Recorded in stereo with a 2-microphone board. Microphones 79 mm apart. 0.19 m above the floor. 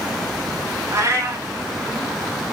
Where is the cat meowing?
40° right (ahead or behind), 0.9 m.